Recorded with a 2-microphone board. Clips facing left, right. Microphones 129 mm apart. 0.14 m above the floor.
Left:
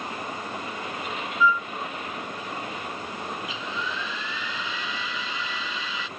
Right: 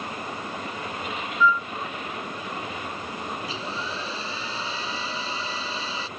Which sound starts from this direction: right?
A hair dryer, at 3.4 s.